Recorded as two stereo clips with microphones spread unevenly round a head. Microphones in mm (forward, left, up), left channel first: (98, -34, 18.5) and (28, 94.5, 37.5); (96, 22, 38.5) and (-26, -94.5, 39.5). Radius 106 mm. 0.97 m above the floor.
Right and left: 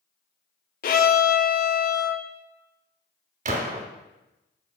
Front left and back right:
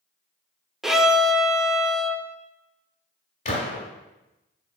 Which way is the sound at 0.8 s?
50° right.